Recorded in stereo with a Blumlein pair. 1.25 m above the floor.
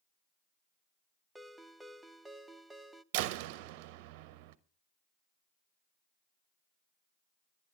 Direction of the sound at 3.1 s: 45° right.